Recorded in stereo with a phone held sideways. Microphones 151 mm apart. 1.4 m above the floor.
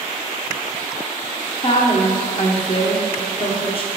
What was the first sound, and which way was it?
A woman speaking, 35° left (ahead or behind).